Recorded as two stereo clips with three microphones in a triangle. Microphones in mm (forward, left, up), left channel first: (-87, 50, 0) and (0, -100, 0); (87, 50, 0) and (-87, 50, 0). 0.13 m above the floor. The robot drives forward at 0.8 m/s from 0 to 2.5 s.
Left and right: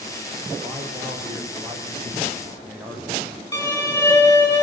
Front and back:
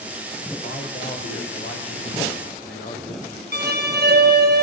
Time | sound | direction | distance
0.6 | a man speaking | 15° left | 6.5 m
3.5 | a violin | 175° right | 3.5 m